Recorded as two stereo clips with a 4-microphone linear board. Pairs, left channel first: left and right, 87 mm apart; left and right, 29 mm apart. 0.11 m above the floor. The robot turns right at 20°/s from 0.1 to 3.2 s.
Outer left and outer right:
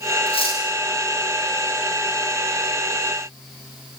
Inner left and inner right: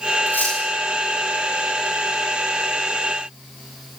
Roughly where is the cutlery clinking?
Left.